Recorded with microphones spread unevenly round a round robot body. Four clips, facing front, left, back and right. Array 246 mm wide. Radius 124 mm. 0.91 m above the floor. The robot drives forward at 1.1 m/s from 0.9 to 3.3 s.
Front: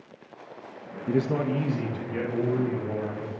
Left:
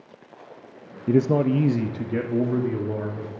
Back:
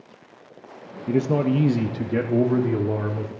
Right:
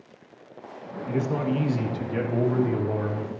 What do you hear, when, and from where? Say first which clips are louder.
1.1 s a man speaking: left 7 dB, back 4 dB; 100° left, 0.9 m; by 3.3 s 165° left, 2.5 m